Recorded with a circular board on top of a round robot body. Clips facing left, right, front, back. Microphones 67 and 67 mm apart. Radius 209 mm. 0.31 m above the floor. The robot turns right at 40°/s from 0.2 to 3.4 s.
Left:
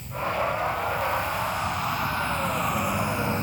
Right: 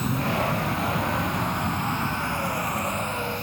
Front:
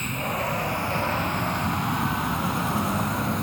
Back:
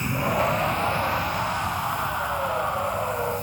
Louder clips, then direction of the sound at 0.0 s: Right 2 dB, back 4 dB; 100° right.